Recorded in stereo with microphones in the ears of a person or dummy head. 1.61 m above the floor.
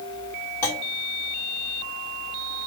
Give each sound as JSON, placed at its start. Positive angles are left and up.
{"t": 0.6, "sound": "a clunk", "side_deg": 15, "distance_m": 3.5}